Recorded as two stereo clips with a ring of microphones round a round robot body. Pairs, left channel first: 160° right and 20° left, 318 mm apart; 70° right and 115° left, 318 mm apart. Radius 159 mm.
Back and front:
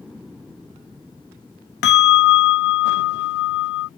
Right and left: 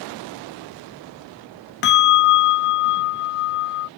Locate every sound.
1.8 s a bell: 115° right